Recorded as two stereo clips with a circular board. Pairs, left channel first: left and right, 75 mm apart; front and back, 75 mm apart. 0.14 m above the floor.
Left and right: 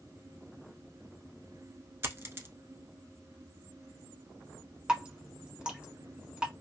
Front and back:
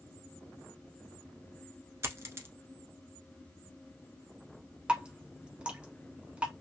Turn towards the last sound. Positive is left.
turn(degrees=-140)